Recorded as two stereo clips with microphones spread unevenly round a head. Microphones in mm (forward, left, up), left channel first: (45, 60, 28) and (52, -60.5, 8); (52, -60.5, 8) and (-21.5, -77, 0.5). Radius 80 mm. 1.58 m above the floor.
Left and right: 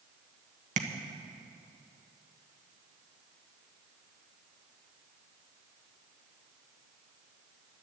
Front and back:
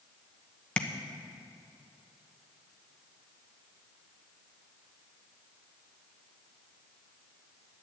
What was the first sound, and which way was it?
Tapping, 60° right.